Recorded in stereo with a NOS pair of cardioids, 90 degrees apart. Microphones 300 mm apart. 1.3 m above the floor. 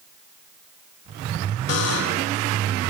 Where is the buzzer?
55° left, 1.1 m.